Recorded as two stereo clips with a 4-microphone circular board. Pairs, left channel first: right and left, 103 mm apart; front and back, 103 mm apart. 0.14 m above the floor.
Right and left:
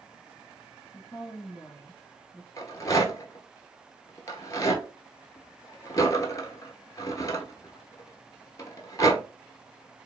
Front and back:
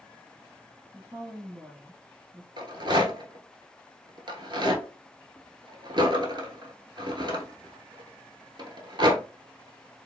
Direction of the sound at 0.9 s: 125° right.